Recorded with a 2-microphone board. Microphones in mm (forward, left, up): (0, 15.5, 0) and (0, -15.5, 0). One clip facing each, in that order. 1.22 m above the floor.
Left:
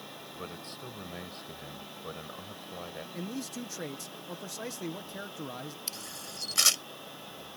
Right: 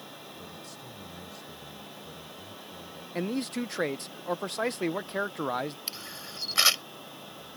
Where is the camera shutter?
20° right (ahead or behind).